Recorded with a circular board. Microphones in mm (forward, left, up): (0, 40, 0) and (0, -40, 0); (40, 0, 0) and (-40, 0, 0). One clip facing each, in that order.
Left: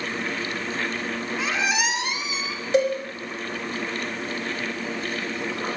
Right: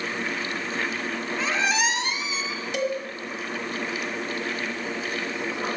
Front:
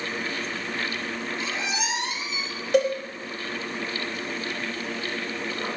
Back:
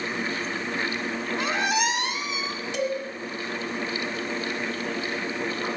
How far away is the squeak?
About 1.4 m.